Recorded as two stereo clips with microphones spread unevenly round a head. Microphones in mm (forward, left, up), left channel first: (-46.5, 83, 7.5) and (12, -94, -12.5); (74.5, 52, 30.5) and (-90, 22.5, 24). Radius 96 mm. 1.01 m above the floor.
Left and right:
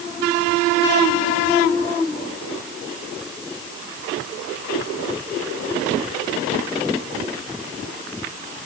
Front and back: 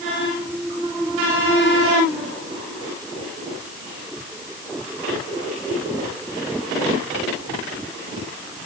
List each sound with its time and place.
Only background noise.